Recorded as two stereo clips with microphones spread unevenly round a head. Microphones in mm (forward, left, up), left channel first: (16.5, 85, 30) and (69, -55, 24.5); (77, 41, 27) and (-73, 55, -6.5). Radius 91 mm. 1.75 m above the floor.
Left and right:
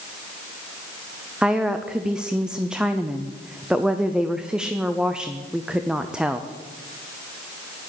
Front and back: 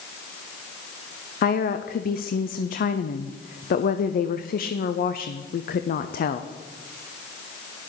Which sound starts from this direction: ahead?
A woman speaking, at 1.4 s.